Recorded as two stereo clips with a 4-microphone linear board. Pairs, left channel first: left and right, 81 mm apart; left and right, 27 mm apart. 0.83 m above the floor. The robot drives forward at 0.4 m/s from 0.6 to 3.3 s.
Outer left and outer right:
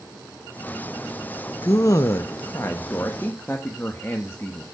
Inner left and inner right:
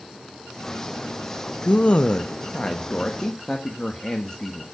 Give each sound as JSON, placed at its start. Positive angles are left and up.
{"t": 1.6, "sound": "a man speaking", "side_deg": 45, "distance_m": 0.6}